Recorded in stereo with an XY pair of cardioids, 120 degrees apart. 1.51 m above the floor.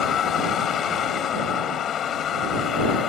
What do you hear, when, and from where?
0.0 s a vehicle: 50° left